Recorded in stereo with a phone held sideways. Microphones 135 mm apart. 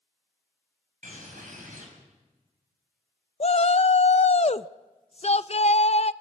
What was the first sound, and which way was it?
A bird, 80° right.